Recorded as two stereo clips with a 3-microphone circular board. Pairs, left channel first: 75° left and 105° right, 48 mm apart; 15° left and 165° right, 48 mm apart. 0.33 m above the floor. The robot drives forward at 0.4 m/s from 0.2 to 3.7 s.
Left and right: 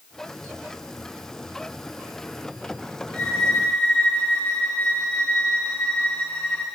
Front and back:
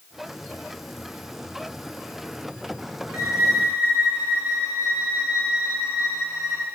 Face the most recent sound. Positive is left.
turn(degrees=140)